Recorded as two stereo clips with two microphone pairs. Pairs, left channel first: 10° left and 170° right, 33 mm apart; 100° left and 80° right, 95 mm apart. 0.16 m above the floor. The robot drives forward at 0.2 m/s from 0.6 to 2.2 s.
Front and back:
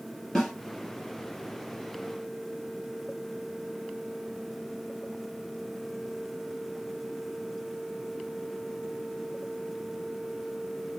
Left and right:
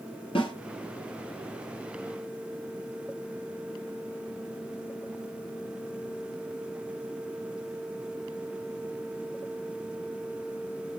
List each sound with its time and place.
0.3 s a snare drum: 90° left, 1.8 m